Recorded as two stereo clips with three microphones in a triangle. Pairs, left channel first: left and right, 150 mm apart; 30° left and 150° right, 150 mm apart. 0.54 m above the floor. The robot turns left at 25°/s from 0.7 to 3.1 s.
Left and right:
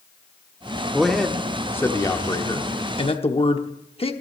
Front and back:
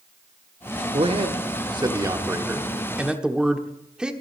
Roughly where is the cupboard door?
No cupboard door in this recording.